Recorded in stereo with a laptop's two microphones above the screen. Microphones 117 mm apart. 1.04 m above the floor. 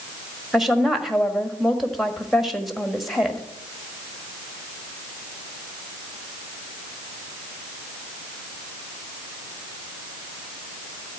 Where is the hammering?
I don't hear hammering.